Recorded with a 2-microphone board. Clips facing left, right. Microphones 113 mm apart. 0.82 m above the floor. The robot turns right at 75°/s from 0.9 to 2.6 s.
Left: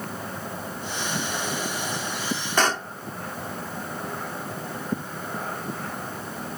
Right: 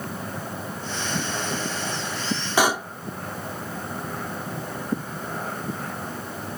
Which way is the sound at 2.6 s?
10° right (ahead or behind).